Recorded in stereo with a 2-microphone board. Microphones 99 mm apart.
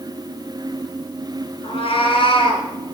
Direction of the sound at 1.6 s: 85° left.